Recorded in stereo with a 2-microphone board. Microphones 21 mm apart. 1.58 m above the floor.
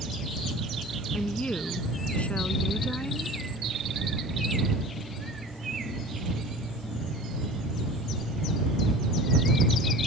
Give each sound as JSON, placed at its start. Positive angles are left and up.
{"t": 1.1, "sound": "a woman speaking", "side_deg": 80}